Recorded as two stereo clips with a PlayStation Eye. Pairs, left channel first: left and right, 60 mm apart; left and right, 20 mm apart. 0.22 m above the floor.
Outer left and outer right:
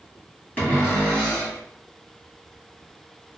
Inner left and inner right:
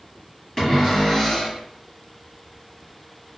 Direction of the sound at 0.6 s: 25° left (ahead or behind).